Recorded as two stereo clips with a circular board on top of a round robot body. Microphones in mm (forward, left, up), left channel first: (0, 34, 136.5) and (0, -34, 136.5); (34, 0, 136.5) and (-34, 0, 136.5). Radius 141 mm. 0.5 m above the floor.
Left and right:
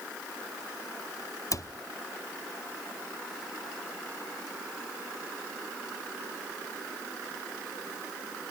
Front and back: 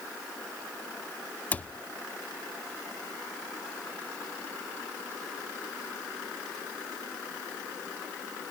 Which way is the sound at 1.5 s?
65° left.